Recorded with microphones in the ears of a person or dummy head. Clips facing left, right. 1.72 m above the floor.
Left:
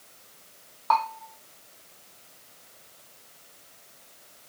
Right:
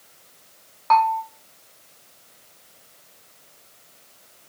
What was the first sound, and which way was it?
A bell, 35° right (ahead or behind).